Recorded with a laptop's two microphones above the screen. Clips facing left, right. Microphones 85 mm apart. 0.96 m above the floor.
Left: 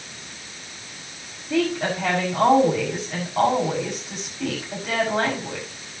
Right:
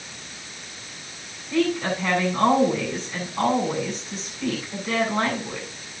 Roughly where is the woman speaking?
Left.